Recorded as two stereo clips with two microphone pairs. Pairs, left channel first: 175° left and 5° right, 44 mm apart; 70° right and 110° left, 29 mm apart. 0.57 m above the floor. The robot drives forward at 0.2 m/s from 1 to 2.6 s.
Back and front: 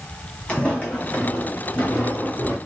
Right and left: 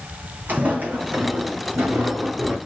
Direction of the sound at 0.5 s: 110° left.